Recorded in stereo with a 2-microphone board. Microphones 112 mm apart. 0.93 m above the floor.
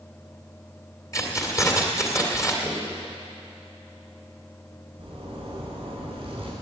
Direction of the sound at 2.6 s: 10° left (ahead or behind).